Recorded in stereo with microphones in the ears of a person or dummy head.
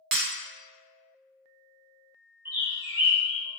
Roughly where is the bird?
Centre.